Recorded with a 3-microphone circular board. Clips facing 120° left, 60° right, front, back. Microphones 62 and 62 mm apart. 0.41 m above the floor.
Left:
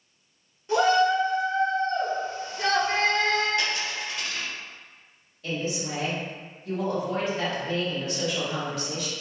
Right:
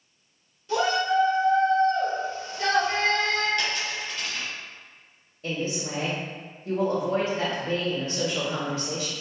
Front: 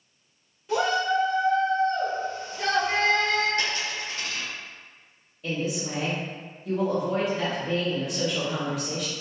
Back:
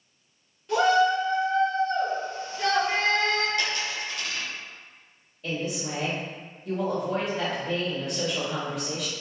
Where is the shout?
85° left, 1.2 m.